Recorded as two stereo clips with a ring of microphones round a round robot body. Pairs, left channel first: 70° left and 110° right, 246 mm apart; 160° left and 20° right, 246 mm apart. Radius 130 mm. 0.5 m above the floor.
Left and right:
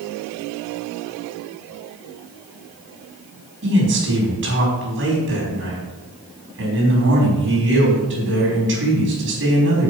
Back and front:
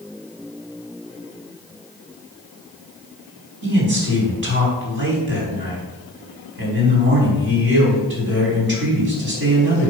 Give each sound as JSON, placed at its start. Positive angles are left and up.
{"t": 3.6, "sound": "a man speaking", "azimuth_deg": -70, "distance_m": 5.0}